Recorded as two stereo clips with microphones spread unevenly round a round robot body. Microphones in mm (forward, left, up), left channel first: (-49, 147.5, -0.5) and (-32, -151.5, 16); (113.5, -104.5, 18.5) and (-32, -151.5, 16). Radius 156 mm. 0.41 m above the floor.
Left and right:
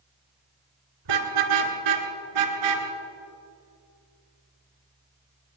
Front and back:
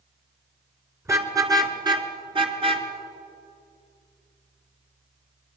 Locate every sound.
1.1 s a car horn: 90° right, 3 m; by 2.9 s 110° right, 3 m